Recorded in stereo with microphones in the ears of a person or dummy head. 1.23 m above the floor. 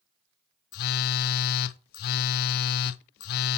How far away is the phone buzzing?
About 0.5 m.